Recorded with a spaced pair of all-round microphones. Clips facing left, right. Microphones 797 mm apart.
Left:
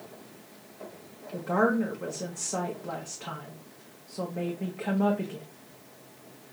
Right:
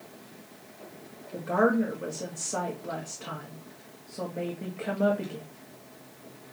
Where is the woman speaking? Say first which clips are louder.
Right 1 dB; 35° left (ahead or behind), 1.1 m.